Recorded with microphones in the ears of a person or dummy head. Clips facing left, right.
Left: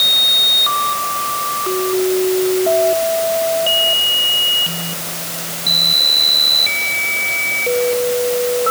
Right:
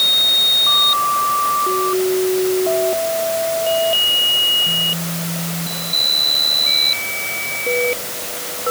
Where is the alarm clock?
No alarm clock in this recording.